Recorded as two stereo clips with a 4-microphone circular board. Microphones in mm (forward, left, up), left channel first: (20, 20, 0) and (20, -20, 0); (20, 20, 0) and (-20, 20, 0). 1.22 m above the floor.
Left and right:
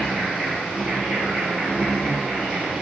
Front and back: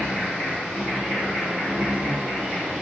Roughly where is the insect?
Behind right.